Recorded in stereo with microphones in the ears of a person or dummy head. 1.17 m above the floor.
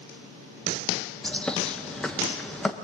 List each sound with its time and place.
1.2 s a bird: centre (ahead or behind), 1.3 m